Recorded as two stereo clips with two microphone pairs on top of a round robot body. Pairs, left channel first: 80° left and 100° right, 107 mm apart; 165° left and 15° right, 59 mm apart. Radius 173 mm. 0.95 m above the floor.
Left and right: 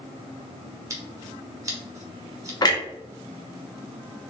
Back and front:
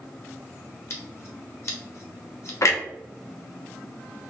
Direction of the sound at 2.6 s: 130° left.